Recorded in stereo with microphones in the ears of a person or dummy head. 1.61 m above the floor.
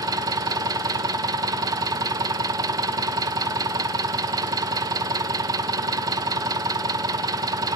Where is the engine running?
25° right (ahead or behind), 1.2 m.